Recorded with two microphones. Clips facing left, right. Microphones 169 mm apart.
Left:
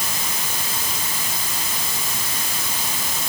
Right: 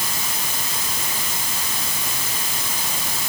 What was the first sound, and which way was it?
Only background noise.